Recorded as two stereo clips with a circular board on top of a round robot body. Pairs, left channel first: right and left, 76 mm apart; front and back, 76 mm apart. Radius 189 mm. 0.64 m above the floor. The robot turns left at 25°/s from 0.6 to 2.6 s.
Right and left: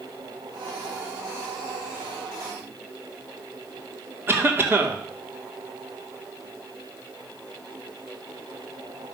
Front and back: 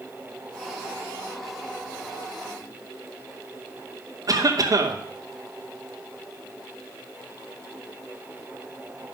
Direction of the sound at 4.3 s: 145° left.